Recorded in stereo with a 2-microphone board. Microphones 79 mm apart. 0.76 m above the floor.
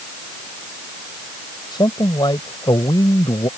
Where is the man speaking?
75° left (ahead or behind).